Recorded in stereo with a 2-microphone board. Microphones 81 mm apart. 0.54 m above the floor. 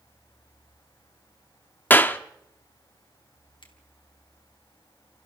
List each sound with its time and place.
1.9 s a clap: 25° left (ahead or behind), 0.9 m
3.6 s a finger snap: 80° left, 3.5 m